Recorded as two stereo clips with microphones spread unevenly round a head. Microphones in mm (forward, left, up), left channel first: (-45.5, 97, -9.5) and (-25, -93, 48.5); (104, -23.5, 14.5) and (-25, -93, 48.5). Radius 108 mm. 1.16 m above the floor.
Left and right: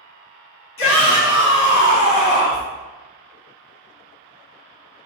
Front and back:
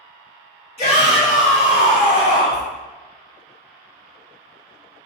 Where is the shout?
85° left, 1.9 m; by 2.6 s 45° left, 1.3 m.